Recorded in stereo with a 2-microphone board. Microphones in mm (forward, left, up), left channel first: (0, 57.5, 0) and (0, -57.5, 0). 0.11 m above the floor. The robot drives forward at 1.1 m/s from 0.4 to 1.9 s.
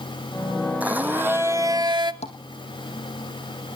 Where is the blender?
15° right (ahead or behind), 1.5 m; by 2.1 s 40° right (ahead or behind), 0.5 m.